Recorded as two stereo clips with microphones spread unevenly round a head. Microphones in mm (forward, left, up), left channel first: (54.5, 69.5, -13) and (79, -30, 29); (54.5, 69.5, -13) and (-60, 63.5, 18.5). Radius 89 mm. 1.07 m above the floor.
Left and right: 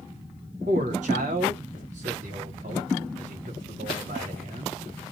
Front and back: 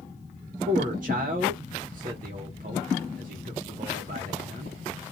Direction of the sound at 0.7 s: 125° right.